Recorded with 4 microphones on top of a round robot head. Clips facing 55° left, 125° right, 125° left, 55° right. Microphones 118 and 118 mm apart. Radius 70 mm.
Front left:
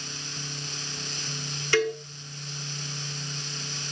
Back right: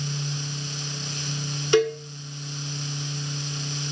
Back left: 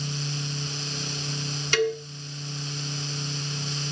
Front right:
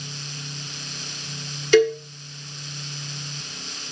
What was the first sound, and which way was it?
A cowbell, 55° right.